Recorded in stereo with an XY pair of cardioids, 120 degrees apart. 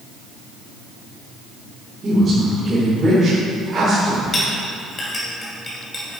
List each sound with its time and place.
2.0 s a woman speaking: 30° right, 3.5 m
4.3 s a clink: 25° left, 3.5 m